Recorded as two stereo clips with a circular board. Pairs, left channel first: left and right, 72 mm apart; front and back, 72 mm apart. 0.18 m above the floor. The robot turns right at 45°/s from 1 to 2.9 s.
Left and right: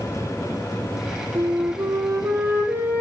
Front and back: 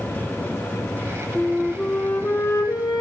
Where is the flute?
95° right, 3 m; by 3.0 s 25° right, 3 m.